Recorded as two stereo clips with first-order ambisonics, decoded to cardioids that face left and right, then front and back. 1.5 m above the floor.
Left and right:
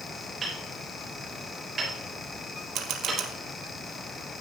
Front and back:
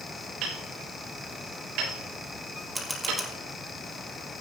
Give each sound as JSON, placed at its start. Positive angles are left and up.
{"t": 0.4, "sound": "hammering", "azimuth_deg": -160, "distance_m": 7.5}
{"t": 2.8, "sound": "a camera shutter", "azimuth_deg": -100, "distance_m": 1.6}